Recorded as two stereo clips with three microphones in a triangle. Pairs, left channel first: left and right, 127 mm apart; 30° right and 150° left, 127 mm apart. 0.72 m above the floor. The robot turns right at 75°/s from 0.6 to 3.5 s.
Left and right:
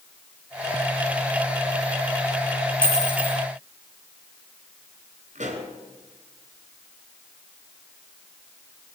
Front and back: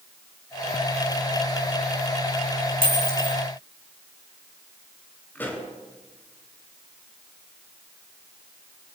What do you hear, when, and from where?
2.8 s a dropped coin: 165° right, 3 m; by 3.4 s 120° right, 3 m
5.3 s a pop: 105° right, 3 m